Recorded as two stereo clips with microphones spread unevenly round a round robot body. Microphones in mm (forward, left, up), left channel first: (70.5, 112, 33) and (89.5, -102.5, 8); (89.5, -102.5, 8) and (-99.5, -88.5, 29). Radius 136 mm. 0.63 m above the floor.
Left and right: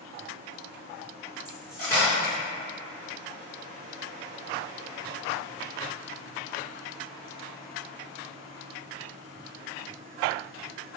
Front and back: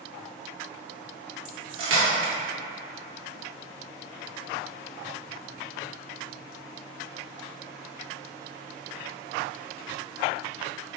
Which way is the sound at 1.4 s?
Straight behind.